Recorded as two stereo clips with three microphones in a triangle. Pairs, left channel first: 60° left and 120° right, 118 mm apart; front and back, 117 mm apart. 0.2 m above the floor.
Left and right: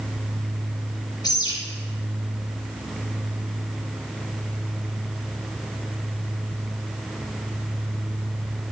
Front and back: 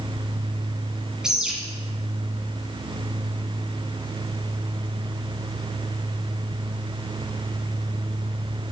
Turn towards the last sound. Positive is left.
turn(degrees=95)